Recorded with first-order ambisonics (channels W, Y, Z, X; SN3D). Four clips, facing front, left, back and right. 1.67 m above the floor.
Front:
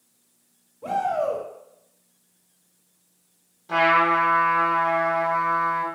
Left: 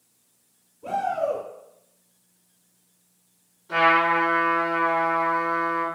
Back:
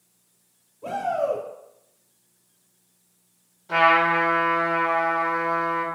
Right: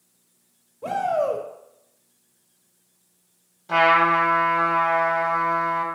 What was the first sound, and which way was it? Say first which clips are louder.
A shout: right 2 dB, front 1 dB; 75° right.